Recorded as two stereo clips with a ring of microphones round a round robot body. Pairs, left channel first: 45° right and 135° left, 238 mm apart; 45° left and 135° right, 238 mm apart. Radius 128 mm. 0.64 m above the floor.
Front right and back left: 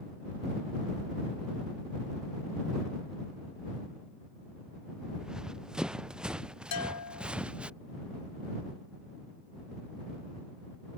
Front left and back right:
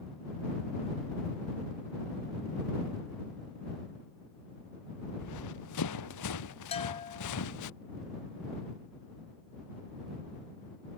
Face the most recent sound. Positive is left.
turn(degrees=-20)